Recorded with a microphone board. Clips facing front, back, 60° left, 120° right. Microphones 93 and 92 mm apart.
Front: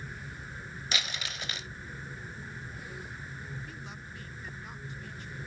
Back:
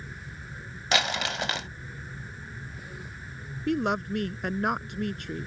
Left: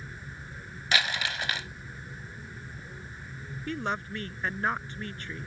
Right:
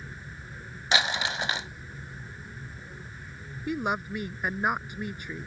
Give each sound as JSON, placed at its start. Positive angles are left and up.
{"t": 0.9, "sound": "crumpling", "azimuth_deg": 175}
{"t": 3.7, "sound": "a woman speaking", "azimuth_deg": 165}